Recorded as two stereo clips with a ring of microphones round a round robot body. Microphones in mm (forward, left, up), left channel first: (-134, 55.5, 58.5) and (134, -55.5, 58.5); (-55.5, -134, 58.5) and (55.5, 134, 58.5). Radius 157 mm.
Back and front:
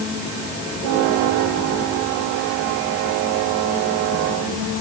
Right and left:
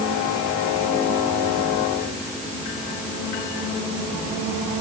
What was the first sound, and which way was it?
Only background noise.